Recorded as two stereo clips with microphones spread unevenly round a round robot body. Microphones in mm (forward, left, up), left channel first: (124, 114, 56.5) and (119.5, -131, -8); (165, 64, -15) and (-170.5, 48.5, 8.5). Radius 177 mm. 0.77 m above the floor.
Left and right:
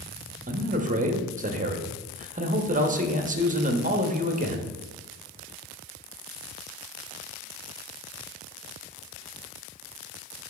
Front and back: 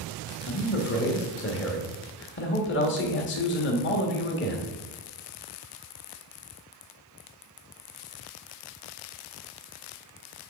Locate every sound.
0.5 s a man speaking: 50° right, 1.3 m